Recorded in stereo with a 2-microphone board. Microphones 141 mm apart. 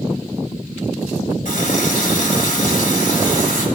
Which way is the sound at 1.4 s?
65° left (ahead or behind).